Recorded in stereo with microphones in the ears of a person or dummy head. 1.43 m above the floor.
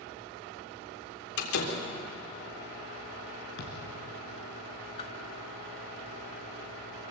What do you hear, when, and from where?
1.4 s a door slam: 80° left, 3.5 m
3.6 s a thud: 65° left (ahead or behind), 4 m
5.0 s a whoosh: 35° left (ahead or behind), 2 m